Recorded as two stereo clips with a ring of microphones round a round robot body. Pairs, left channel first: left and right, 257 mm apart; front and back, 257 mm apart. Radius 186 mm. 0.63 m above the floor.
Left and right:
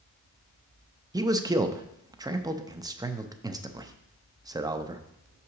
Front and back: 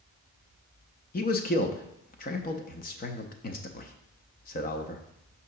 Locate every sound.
1.1 s a man speaking: 20° right, 0.6 m